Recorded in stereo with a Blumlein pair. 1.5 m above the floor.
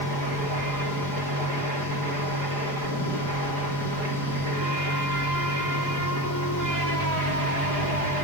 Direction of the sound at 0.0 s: 60° left.